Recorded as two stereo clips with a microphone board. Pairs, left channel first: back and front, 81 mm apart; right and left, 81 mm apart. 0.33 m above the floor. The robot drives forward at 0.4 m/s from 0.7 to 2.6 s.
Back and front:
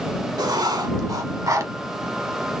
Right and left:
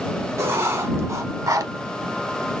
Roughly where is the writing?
Ahead left.